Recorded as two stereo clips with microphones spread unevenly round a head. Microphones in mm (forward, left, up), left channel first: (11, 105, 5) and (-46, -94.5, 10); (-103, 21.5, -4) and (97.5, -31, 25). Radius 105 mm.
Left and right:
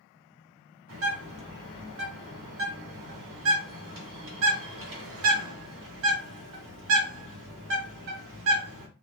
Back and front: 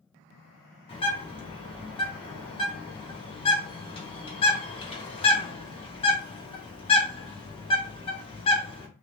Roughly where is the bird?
Behind right.